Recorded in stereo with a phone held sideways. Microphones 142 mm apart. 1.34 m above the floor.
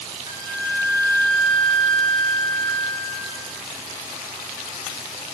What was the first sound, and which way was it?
A flute, 65° left (ahead or behind).